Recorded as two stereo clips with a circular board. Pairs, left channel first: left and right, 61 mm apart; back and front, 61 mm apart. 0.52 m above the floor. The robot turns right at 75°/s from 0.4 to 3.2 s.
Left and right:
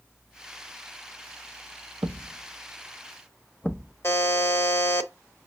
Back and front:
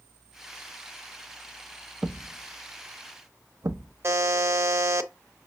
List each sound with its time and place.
2.0 s a thud: 65° right, 0.5 m; by 3.9 s 25° left, 0.5 m
4.0 s a buzzer: 45° left, 0.7 m